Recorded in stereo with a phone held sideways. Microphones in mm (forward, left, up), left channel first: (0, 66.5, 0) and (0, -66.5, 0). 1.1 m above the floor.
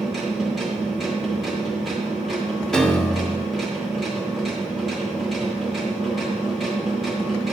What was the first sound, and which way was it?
A machine running, centre (ahead or behind).